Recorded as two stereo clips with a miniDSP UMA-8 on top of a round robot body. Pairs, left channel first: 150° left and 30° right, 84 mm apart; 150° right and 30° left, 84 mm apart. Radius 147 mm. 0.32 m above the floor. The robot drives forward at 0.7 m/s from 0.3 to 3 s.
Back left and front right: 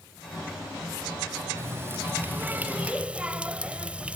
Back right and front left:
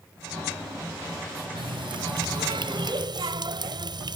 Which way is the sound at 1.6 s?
25° left.